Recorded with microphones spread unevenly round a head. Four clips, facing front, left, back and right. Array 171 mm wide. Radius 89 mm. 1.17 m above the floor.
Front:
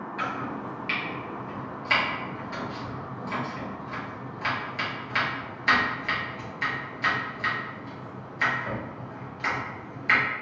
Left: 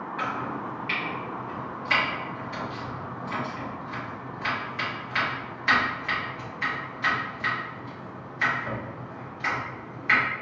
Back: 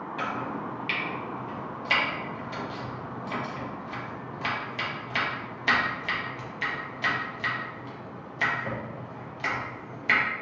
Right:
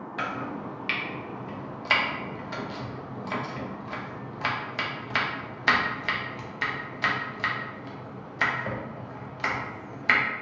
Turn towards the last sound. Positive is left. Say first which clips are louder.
# left 1 dB, even
turn(degrees=-125)